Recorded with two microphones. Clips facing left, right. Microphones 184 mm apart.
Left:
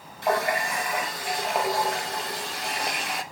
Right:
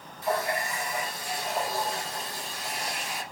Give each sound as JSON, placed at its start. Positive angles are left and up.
{"t": 0.2, "sound": "a running tap", "side_deg": 70, "distance_m": 0.9}